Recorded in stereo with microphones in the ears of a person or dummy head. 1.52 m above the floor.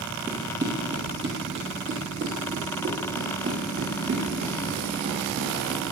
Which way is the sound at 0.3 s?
15° right (ahead or behind).